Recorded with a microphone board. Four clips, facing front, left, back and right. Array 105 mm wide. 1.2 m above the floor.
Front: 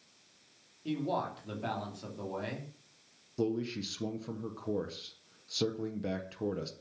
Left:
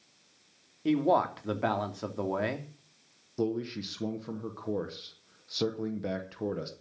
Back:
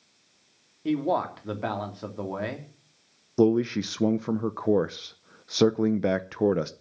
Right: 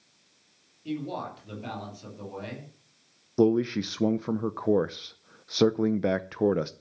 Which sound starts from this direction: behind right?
A man speaking, at 3.4 s.